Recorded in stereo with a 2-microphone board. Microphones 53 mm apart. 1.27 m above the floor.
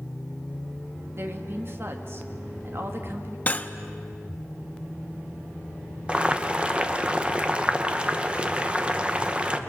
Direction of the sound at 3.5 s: 30° left (ahead or behind).